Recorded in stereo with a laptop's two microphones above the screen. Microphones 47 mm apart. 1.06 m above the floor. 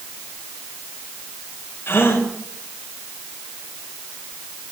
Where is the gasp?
60° left (ahead or behind), 4.5 m.